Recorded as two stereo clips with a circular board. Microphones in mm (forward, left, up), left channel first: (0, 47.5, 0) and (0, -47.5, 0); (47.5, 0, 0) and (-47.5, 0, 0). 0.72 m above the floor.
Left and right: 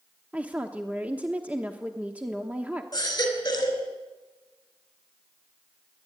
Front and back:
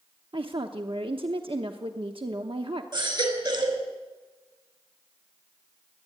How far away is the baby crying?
About 4 m.